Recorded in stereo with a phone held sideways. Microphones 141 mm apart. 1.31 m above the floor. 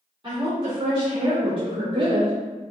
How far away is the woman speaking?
About 1.5 m.